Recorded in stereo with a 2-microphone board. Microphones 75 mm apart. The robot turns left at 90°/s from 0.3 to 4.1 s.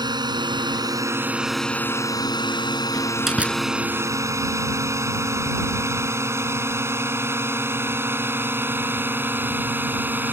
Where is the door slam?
25° left (ahead or behind); by 3.6 s 30° right (ahead or behind).